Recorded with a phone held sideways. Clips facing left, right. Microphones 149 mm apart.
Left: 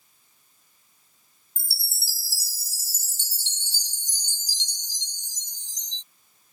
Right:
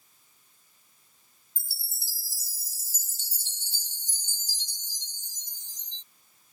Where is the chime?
70° left (ahead or behind).